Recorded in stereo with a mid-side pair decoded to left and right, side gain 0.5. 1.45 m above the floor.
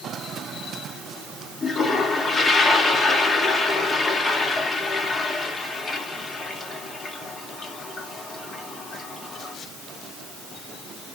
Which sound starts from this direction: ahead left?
A toilet flushing, at 1.6 s.